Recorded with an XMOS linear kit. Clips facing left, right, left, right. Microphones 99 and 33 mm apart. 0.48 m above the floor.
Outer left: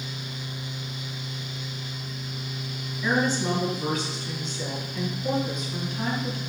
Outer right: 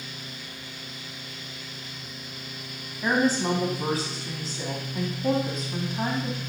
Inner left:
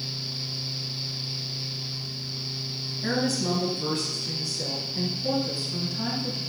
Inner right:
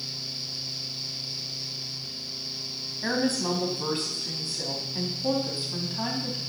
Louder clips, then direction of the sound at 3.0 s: Outer right 1 dB, even; 35° right (ahead or behind).